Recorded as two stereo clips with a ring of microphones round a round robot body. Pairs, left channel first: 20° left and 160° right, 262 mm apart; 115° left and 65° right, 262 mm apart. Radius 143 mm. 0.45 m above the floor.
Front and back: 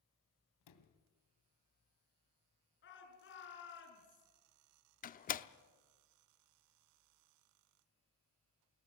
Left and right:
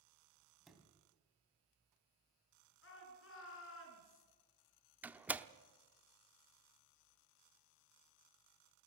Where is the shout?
70° left, 6.5 m.